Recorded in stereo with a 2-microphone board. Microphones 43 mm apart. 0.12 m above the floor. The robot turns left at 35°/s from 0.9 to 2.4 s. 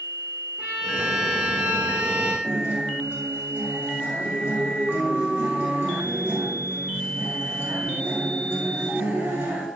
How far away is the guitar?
About 3.5 m.